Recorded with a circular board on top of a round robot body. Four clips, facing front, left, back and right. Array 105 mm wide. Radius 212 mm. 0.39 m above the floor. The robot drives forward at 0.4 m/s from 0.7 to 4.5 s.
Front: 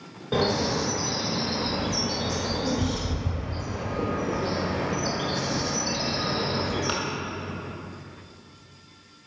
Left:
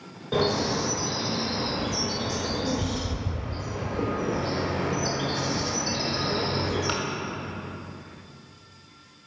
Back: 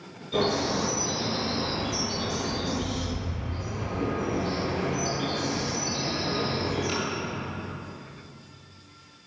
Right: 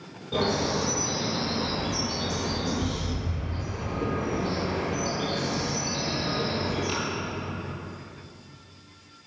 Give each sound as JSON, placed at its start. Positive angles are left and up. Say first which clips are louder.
{"t": 0.3, "sound": "a bird", "louder": "left 1 dB, front 1 dB", "azimuth_deg": 30, "distance_m": 2.5}